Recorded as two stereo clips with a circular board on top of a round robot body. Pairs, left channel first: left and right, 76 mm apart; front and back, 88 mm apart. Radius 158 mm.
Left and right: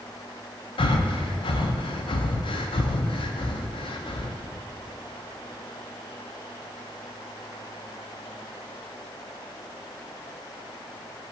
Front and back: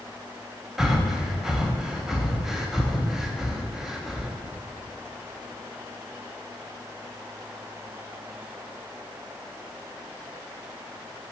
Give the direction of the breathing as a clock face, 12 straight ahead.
9 o'clock.